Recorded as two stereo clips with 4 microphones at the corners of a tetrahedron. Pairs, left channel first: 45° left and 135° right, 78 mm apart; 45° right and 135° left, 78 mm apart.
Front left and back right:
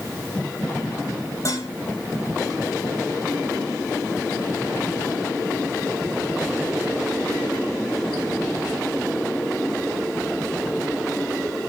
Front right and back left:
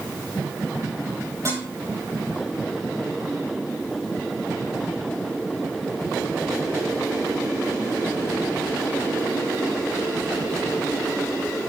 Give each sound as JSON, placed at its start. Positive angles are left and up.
{"t": 1.4, "sound": "dishes clattering", "azimuth_deg": 90, "distance_m": 7.5}